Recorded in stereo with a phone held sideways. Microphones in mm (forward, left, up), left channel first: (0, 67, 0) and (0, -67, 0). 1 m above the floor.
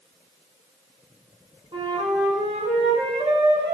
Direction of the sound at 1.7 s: 45° right (ahead or behind).